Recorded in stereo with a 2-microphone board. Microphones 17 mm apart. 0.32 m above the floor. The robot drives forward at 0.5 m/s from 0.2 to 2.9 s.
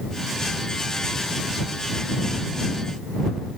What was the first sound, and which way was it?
Only background noise.